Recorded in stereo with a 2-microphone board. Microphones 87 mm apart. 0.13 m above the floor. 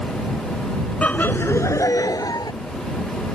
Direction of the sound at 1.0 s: 15° left (ahead or behind).